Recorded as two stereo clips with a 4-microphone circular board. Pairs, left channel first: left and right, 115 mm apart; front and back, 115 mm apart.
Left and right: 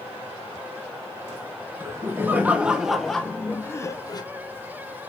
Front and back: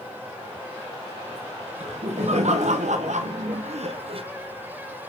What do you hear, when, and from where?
1.8 s laughter: 155° right, 1.4 m; by 4.2 s 145° left, 1.0 m